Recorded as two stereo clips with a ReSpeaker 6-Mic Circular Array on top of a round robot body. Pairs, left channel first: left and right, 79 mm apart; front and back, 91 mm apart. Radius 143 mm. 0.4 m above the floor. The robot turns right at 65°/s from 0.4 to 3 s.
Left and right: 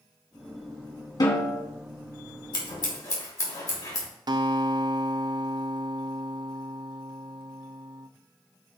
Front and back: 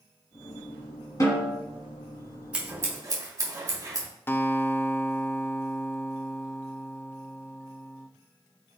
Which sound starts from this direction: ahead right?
A guitar, at 4.3 s.